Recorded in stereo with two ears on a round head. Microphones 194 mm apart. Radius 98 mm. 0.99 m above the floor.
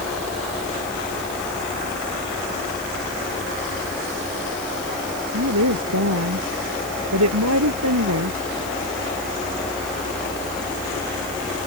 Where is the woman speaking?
90° right.